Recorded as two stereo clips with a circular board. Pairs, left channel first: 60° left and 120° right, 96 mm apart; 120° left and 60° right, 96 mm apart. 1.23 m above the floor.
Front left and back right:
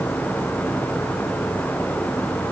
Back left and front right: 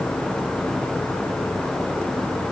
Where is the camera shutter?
No camera shutter in this recording.